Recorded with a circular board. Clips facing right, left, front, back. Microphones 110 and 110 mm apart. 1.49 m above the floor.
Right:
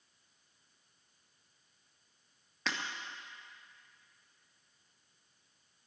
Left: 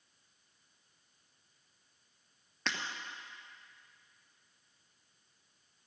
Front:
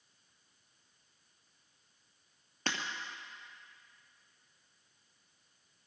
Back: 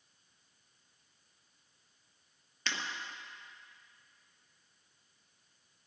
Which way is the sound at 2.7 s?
Straight ahead.